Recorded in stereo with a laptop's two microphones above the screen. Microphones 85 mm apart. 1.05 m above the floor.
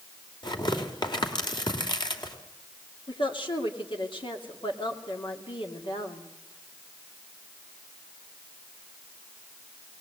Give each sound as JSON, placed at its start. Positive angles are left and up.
{"t": 0.4, "sound": "tearing paper", "side_deg": 60, "distance_m": 2.5}
{"t": 3.1, "sound": "a woman speaking", "side_deg": 75, "distance_m": 2.5}